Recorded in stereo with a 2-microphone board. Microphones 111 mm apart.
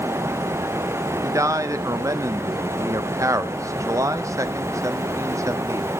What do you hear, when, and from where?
1.2 s a man speaking: 30° right (ahead or behind), 0.6 m